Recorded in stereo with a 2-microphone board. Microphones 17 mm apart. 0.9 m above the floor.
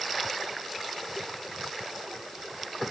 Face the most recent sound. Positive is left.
No sound to turn to.